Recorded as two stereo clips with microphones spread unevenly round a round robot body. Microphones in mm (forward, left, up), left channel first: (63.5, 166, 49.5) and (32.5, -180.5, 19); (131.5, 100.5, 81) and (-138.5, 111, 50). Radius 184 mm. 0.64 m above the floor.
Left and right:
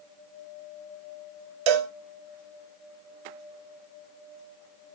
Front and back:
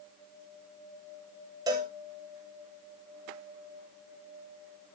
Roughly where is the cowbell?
Right.